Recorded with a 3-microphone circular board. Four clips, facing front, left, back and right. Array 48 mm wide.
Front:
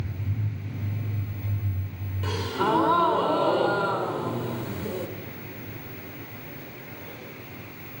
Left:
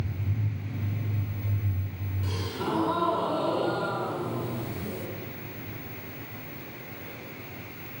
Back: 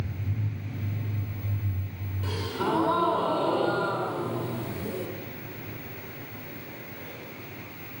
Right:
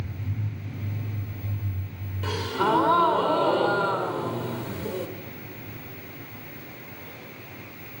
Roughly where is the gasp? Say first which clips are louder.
Right 8 dB, front 4 dB; ahead right.